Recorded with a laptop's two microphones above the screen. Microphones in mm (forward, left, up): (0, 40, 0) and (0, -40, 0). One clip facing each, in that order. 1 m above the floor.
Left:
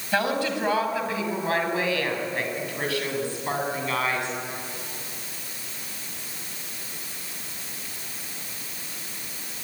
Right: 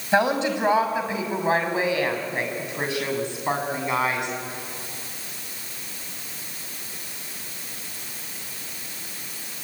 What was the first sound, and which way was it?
A woman speaking, 25° right (ahead or behind).